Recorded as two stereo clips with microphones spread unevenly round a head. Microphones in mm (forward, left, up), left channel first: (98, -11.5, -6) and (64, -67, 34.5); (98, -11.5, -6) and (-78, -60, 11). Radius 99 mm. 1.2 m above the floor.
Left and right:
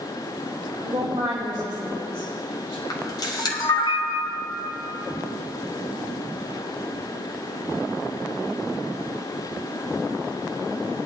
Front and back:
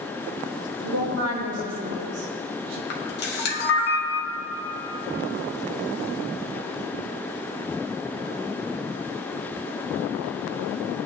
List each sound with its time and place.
0.8 s a woman speaking: 175° left, 3 m
2.9 s a camera shutter: 55° left, 1.7 m